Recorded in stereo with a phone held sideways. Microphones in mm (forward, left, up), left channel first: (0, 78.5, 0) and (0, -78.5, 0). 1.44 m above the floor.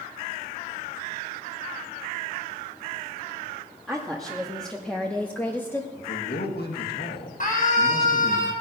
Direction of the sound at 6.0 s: 70° left (ahead or behind).